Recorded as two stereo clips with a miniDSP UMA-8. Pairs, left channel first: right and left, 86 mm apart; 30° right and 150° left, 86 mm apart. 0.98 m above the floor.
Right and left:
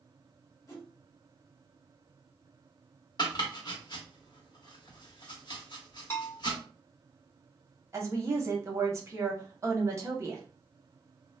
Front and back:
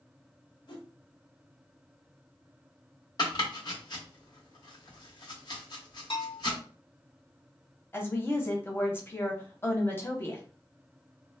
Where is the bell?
30° right, 1.2 m.